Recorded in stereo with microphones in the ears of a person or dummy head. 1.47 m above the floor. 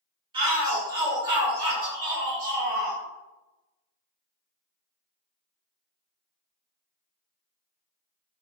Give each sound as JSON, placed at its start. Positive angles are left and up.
{"t": 0.3, "sound": "a shout", "side_deg": -25, "distance_m": 1.1}